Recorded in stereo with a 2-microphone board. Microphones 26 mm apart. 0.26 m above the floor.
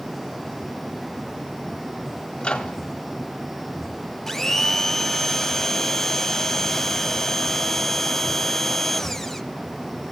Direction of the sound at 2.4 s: 30° left (ahead or behind).